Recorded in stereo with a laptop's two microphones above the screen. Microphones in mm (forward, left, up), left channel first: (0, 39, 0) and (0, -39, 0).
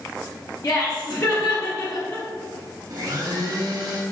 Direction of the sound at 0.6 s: 45° left (ahead or behind).